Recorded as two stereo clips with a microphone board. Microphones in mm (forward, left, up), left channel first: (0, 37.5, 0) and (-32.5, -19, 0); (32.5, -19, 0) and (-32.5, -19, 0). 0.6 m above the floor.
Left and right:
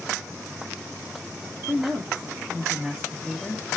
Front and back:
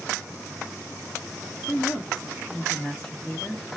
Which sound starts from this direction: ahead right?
A woman speaking, at 1.7 s.